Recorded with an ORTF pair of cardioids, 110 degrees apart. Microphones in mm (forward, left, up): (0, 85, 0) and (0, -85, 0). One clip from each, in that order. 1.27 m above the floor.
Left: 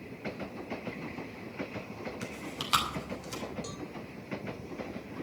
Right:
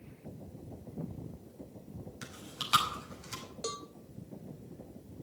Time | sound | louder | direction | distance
2.2 | chewing | right 2 dB | 15° left | 5 m
3.6 | a cowbell | right 3 dB | 35° right | 1.0 m